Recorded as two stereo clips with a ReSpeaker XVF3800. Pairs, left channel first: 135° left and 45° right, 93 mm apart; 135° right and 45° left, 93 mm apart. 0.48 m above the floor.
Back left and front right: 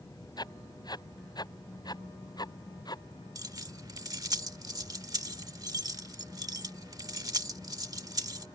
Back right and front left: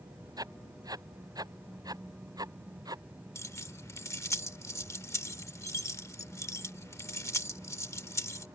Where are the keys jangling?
85° right.